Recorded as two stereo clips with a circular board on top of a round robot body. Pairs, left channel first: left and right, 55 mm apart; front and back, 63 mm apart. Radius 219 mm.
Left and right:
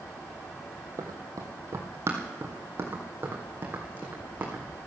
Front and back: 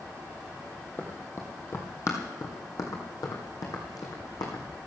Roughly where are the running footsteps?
Ahead right.